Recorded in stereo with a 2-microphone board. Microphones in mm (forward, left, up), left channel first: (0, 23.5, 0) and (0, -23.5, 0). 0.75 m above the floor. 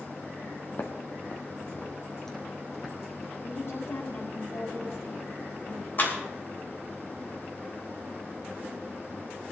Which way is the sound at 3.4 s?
75° left (ahead or behind).